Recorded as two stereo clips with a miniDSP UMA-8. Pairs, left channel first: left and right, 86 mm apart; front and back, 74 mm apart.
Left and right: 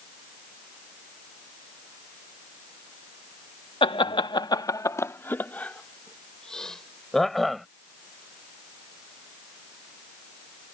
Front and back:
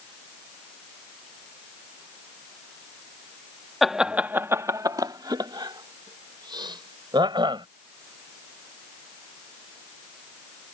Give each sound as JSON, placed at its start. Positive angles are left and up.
{"t": 3.8, "sound": "laughter", "azimuth_deg": 90}